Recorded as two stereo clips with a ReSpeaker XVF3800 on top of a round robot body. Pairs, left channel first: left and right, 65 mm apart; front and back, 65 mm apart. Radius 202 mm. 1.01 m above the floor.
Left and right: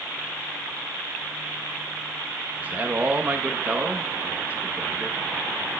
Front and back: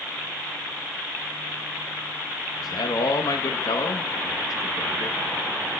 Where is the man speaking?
20° right, 1.1 m.